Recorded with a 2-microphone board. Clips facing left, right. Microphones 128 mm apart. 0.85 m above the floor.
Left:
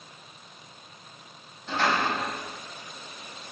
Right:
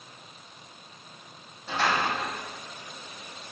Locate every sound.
1.7 s a door slam: 5° right (ahead or behind), 3 m